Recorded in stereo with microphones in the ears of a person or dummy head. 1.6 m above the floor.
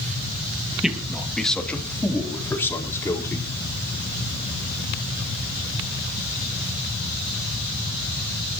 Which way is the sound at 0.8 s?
5° right (ahead or behind).